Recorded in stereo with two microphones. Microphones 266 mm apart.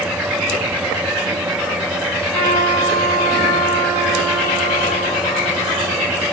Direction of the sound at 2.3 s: 75° right (ahead or behind).